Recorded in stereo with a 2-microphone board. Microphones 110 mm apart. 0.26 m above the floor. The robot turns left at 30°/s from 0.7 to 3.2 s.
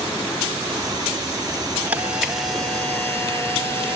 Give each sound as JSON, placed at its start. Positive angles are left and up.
{"t": 1.9, "sound": "a camera shutter", "azimuth_deg": -165, "distance_m": 2.0}